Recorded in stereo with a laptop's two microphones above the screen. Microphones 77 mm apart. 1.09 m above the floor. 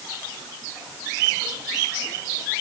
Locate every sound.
Only background noise.